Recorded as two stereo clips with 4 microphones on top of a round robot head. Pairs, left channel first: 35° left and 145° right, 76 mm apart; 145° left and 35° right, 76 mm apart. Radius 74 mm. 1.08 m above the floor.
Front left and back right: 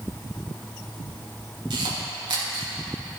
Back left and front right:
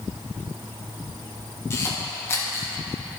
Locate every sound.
1.7 s a camera shutter: 160° right, 2.5 m